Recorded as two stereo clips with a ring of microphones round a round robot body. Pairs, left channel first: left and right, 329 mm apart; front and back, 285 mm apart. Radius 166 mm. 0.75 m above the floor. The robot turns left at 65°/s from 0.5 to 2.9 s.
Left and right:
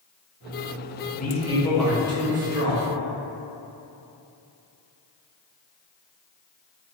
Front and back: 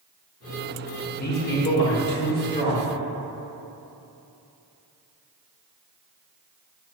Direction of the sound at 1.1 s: 45° left.